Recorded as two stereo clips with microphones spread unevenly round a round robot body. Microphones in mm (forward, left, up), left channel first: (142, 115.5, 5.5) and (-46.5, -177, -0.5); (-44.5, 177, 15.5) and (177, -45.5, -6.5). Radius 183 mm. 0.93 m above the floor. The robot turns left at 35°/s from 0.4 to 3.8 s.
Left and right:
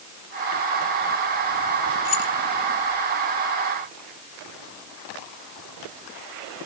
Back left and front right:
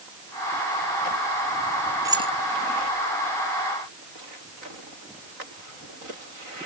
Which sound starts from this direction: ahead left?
Keys jangling, at 2.0 s.